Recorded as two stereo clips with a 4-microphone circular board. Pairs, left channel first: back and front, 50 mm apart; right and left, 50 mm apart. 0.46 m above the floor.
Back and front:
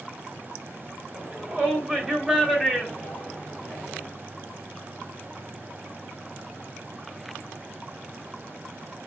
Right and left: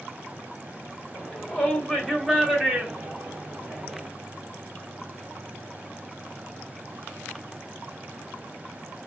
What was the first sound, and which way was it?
A shout, 40° right.